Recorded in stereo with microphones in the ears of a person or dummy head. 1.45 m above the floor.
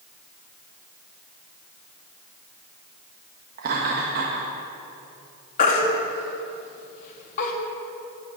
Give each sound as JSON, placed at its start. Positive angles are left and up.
{"t": 3.6, "sound": "laughter", "side_deg": -55, "distance_m": 1.6}
{"t": 5.6, "sound": "a baby crying", "side_deg": 50, "distance_m": 1.5}